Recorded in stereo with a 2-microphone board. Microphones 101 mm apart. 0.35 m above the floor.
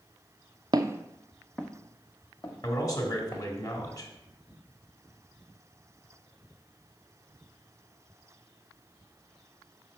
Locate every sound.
0.7 s footsteps: 40° right (ahead or behind), 0.5 m; by 3.4 s 35° left (ahead or behind), 2 m
2.6 s a man speaking: 40° left (ahead or behind), 1.8 m